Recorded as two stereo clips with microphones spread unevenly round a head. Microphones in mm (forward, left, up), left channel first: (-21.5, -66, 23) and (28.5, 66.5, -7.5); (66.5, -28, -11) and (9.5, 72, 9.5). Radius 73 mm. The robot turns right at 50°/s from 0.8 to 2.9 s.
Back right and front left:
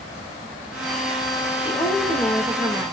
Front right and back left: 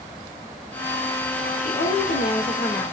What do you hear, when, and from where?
1.6 s a woman speaking: 55° right, 1.9 m; by 2.9 s 10° left, 1.9 m